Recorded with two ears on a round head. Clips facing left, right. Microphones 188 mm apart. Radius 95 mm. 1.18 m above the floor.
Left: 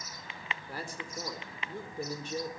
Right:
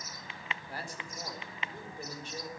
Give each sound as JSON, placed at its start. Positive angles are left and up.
{"t": 0.7, "sound": "a man speaking", "side_deg": 75, "distance_m": 4.5}